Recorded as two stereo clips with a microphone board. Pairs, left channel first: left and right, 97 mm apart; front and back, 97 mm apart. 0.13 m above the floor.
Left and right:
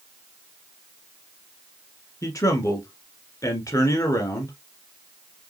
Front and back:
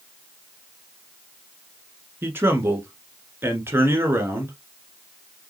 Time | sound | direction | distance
2.2 | a man speaking | 125° left | 1.4 m